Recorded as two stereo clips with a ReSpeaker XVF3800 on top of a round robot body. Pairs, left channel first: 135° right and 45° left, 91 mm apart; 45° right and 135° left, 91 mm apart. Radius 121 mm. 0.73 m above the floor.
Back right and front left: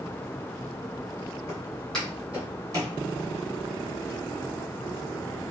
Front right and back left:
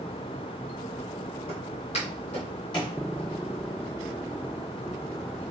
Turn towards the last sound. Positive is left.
turn(degrees=0)